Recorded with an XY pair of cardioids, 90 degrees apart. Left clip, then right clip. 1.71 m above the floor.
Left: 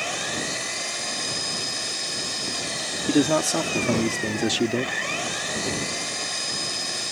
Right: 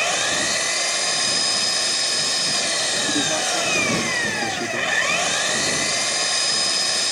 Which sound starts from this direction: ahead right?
An engine running, at 0.0 s.